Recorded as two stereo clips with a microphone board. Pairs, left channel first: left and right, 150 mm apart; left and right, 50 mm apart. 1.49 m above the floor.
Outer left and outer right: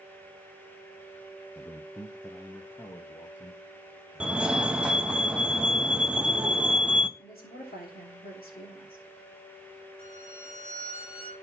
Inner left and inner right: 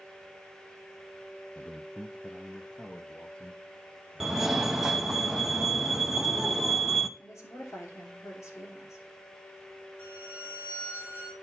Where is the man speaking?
25° left (ahead or behind), 0.6 m; by 5.2 s 15° left (ahead or behind), 2.5 m.